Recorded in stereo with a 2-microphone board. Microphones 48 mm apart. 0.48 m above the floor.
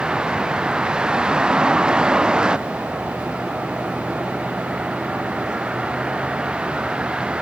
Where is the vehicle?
20° right (ahead or behind).